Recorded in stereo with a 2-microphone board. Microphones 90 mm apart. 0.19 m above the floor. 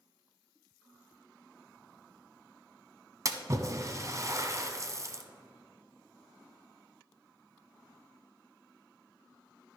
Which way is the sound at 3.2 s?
40° right (ahead or behind).